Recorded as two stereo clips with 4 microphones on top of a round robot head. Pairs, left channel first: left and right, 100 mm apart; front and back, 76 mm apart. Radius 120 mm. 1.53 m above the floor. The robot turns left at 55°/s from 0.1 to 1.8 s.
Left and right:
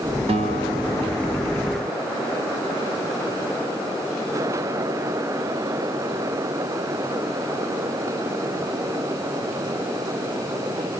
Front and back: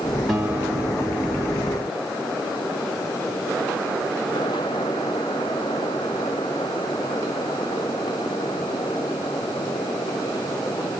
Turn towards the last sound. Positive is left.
turn(degrees=-175)